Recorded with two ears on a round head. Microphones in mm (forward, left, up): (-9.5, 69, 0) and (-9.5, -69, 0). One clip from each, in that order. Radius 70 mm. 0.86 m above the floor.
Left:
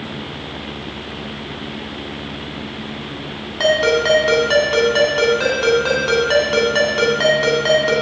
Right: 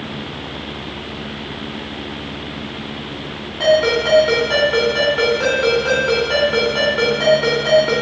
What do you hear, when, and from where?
3.6 s a ringtone: 35° left (ahead or behind), 3 m